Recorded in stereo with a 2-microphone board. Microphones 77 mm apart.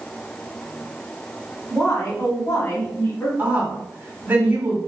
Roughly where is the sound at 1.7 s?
Left.